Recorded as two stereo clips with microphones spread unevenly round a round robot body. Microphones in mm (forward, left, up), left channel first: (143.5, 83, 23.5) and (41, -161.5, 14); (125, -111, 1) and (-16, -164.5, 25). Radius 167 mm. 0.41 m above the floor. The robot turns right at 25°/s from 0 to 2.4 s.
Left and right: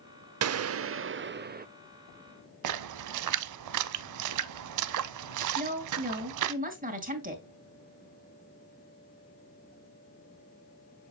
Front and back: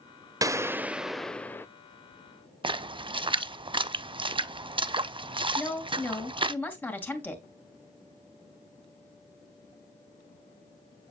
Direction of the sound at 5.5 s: 55° right.